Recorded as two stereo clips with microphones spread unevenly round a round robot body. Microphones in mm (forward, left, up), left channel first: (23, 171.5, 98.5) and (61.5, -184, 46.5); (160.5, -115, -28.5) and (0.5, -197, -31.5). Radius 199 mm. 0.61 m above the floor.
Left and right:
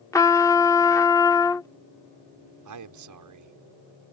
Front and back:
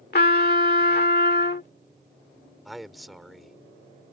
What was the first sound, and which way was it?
A trumpet, 10° left.